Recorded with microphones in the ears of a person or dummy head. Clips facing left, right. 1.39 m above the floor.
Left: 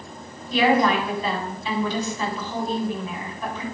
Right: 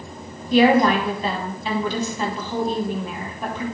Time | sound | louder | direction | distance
0.5 | a woman speaking | right 4 dB | 50° right (ahead or behind) | 4 m